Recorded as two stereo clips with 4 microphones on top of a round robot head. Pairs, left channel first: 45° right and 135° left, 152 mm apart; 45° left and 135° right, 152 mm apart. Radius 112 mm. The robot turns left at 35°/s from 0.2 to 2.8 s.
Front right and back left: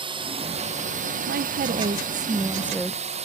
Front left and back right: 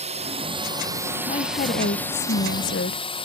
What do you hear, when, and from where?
0.0 s a drone: 175° right; by 3.3 s 95° left
1.3 s a woman speaking: 100° left; by 3.0 s 45° left